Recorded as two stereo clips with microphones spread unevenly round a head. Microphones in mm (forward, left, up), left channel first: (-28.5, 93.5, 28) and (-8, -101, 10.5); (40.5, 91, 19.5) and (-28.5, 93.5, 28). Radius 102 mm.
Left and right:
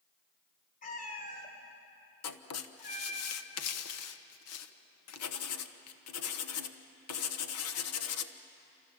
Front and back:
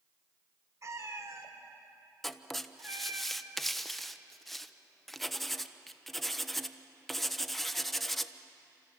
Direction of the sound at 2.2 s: 85° left.